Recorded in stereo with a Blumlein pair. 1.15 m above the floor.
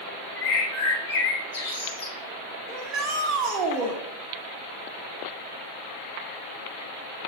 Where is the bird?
55° left, 5.5 m.